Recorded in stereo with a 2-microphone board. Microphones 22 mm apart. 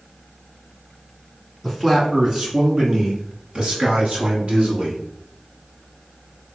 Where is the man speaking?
10° right (ahead or behind), 1.9 m; by 5.0 s 60° right (ahead or behind), 3 m.